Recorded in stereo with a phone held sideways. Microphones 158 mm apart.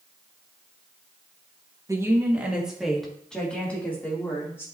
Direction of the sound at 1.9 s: 20° right (ahead or behind).